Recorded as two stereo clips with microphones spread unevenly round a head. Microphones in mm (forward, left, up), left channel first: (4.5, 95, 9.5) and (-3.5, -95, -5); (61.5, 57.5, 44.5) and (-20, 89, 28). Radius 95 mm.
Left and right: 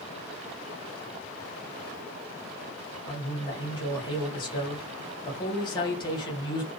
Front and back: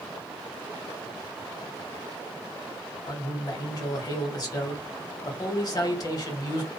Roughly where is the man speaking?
Ahead.